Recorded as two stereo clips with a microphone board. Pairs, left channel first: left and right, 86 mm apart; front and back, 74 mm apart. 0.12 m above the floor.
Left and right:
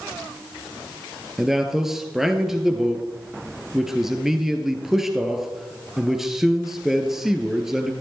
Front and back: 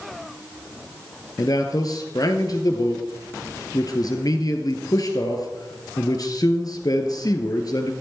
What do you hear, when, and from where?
1.4 s a man speaking: 5° right, 1.9 m